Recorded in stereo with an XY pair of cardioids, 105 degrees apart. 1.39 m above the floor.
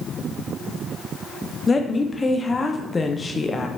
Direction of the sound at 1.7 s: 25° left.